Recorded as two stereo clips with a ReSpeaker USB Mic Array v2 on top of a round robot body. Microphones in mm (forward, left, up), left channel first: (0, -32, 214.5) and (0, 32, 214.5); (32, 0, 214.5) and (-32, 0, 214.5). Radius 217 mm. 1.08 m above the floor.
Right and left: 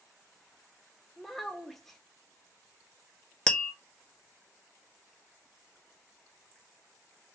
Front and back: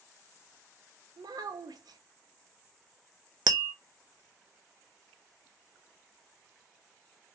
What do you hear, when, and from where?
1.2 s a child speaking: 175° right, 0.7 m
3.5 s tapping: 170° right, 0.5 m